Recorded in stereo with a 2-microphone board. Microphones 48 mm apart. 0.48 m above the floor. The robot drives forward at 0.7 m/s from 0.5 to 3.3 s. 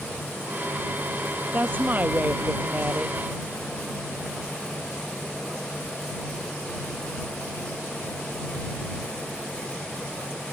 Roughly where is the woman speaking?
Right.